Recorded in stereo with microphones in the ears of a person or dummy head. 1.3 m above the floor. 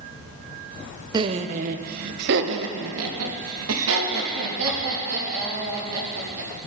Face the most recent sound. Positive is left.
turn(degrees=-85)